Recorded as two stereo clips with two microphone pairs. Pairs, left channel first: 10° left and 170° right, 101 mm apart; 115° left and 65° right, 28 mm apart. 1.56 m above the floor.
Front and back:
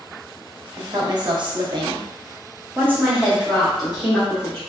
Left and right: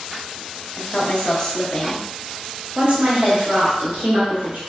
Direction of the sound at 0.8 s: 145° left.